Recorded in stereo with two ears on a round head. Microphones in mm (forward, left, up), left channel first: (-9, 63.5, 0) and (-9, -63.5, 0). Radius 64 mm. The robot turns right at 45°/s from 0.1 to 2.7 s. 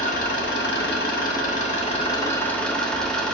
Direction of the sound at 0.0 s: 60° left.